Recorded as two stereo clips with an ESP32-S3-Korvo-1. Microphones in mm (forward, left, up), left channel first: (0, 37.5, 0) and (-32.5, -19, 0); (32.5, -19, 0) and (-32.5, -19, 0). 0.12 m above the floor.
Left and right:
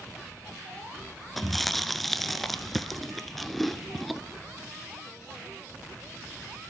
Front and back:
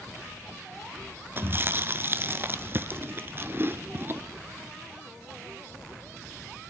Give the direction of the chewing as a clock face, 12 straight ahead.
7 o'clock.